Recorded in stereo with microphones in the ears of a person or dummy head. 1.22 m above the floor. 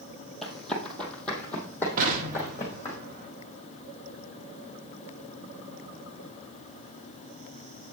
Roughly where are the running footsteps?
Centre.